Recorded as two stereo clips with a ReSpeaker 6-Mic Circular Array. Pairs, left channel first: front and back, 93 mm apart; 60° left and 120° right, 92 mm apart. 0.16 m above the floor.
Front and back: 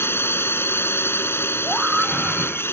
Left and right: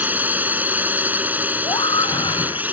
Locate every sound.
0.0 s a drone: 55° right
1.6 s a scream: 95° left